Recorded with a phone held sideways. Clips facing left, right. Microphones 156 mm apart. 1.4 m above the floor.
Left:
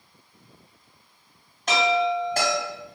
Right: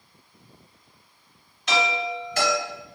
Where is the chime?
50° left (ahead or behind), 1.7 m.